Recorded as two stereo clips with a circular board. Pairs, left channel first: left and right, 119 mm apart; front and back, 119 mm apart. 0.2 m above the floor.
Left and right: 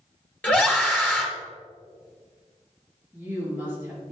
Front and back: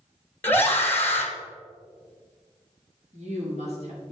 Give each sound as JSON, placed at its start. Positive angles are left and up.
{"t": 0.4, "sound": "a scream", "azimuth_deg": 35, "distance_m": 1.0}
{"t": 3.1, "sound": "a woman speaking", "azimuth_deg": -165, "distance_m": 3.5}